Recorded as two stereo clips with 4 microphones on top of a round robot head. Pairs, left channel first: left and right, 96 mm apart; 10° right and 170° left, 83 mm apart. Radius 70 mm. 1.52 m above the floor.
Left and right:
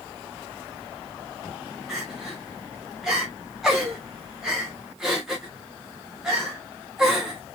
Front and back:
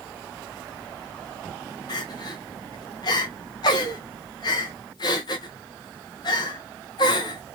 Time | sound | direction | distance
1.9 | crying | 5° right | 0.8 m